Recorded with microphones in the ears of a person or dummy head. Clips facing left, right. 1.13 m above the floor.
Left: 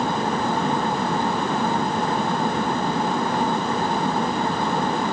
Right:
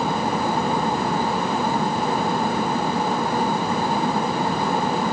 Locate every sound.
Only background noise.